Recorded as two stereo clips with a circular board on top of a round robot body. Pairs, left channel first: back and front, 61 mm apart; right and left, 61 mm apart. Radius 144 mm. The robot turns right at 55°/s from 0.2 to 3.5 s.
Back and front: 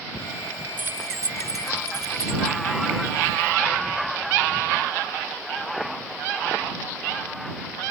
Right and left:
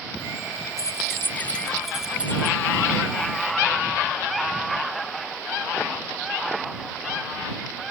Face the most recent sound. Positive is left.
turn(degrees=90)